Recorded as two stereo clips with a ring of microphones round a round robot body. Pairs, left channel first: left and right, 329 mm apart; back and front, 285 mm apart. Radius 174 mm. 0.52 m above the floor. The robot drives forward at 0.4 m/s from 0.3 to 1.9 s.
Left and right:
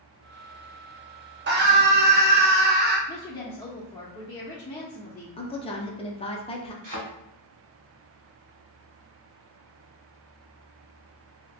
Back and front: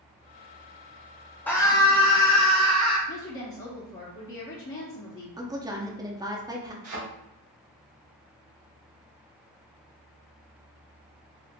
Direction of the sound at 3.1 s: 160° left.